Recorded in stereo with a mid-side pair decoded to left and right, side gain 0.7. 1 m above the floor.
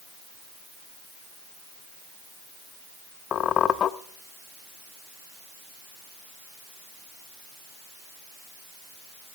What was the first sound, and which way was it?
A squeak, 40° left.